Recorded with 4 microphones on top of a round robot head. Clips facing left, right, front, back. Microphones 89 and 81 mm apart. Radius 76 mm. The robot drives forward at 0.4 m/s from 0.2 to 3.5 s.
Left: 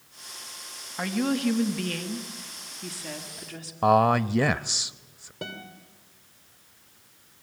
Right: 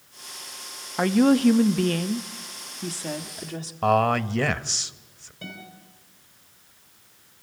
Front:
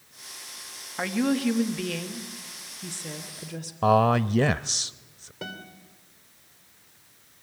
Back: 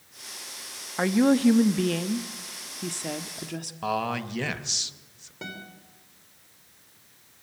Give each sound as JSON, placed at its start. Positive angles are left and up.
{"t": 1.0, "sound": "a woman speaking", "azimuth_deg": -110, "distance_m": 0.9}
{"t": 3.8, "sound": "a man speaking", "azimuth_deg": 15, "distance_m": 0.5}
{"t": 5.4, "sound": "a guitar", "azimuth_deg": 95, "distance_m": 3.0}